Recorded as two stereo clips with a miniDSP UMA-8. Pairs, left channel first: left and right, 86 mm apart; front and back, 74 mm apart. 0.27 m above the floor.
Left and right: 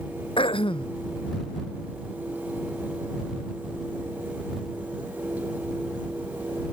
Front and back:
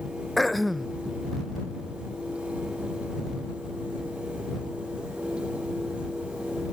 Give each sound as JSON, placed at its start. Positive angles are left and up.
{"t": 0.4, "sound": "throat clearing", "azimuth_deg": 90}